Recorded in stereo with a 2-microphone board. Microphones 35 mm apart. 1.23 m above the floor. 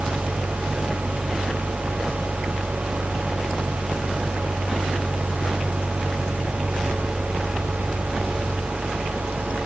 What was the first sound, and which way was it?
Only background noise.